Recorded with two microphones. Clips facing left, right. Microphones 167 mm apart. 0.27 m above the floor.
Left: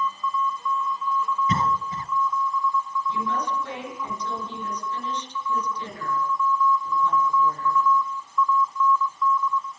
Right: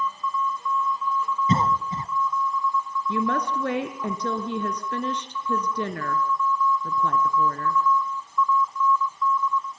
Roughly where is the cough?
Right.